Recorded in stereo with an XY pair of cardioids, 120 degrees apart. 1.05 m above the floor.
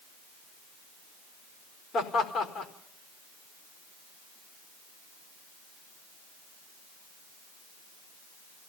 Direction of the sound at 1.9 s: 40° left.